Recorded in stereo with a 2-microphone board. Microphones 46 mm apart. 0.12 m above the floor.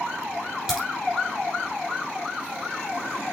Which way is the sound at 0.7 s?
5° right (ahead or behind).